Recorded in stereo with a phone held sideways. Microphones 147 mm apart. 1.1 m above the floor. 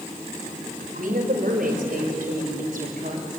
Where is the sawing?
I don't hear sawing.